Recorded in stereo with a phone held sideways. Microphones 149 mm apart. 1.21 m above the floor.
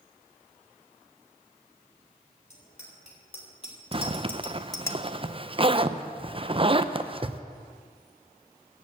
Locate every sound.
2.5 s a bicycle bell: 45° left (ahead or behind), 4 m; by 4.9 s 15° left (ahead or behind), 0.9 m
3.9 s a zipper: 35° right (ahead or behind), 0.6 m